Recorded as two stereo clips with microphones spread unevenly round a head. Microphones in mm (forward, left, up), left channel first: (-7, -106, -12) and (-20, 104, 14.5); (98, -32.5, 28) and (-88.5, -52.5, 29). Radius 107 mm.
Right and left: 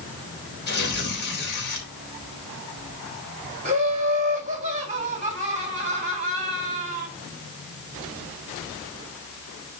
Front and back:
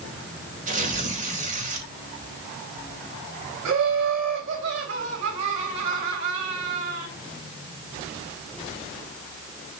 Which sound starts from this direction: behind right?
Tearing paper, at 0.7 s.